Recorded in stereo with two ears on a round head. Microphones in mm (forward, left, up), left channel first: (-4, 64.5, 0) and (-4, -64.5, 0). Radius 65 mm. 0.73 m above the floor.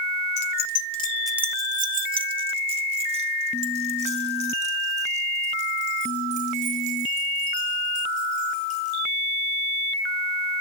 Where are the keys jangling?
85° left, 1.0 m; by 9.0 s 55° right (ahead or behind), 11 m.